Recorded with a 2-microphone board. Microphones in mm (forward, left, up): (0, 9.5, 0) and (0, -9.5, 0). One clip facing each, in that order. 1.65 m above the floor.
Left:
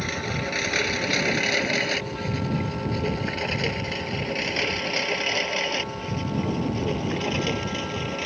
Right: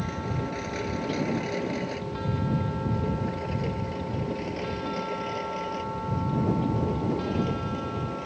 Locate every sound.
0.0 s a lawn mower: 55° left (ahead or behind); by 8.3 s 70° left (ahead or behind)